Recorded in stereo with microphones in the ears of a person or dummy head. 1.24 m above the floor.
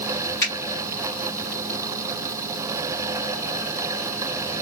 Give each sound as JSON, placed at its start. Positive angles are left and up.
{"t": 0.4, "sound": "a finger snap", "side_deg": 15, "distance_m": 2.0}